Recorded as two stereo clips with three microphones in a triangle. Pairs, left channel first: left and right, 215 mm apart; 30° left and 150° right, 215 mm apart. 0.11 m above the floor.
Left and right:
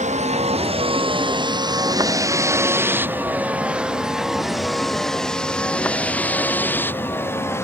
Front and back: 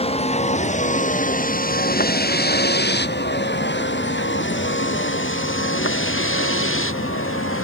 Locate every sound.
0.0 s a vehicle: 35° right; by 7.7 s 10° left